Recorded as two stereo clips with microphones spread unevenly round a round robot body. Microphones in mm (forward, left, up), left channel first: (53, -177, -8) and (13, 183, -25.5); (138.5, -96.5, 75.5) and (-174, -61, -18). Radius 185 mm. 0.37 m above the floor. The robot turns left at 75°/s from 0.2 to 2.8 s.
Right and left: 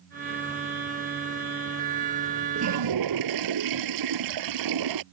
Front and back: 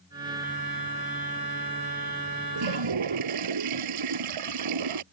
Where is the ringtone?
I don't hear a ringtone.